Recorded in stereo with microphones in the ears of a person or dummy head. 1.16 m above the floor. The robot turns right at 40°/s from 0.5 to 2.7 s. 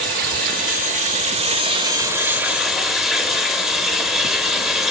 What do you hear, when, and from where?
0.0 s running water: 90° right, 1.1 m; by 4.9 s 5° right, 1.1 m